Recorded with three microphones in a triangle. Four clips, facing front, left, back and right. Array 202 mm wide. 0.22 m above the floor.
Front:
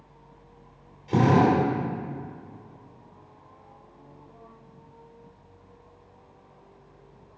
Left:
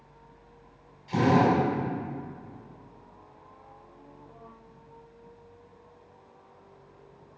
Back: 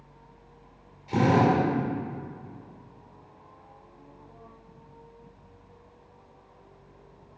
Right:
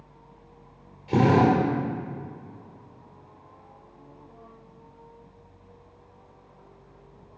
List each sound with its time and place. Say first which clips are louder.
1.1 s a drill: right 3 dB, front 2 dB; 70° right, 3 m